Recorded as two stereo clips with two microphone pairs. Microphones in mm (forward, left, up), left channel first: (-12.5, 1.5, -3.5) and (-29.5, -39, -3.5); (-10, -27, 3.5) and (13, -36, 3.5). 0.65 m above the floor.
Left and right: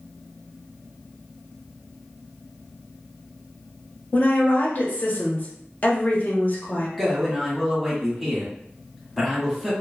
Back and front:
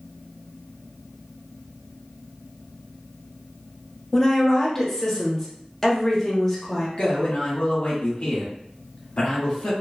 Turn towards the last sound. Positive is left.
turn(degrees=165)